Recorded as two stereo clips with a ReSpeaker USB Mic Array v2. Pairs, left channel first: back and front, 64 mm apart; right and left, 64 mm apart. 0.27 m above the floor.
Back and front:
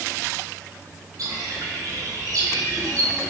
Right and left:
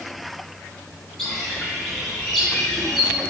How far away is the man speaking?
I don't hear a man speaking.